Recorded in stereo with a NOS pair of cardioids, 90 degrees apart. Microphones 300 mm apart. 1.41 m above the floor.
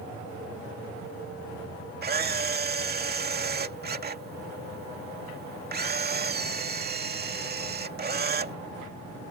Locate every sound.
2.0 s a camera shutter: 30° right